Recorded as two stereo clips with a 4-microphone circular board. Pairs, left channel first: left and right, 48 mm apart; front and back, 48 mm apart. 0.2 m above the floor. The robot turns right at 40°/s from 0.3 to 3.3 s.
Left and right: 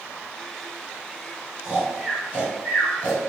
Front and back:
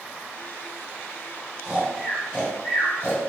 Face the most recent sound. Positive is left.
turn(degrees=-35)